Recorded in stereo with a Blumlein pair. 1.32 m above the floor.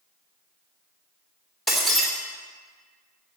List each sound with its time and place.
1.7 s breaking glass: 5° left, 3 m